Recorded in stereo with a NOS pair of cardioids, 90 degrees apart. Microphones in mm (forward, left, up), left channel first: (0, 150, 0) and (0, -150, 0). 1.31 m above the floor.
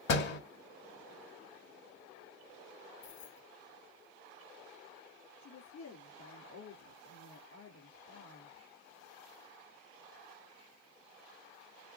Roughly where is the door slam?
Ahead left.